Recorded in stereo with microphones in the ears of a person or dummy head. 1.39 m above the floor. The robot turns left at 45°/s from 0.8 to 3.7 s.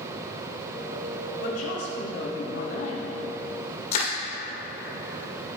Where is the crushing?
40° left (ahead or behind), 1.9 m.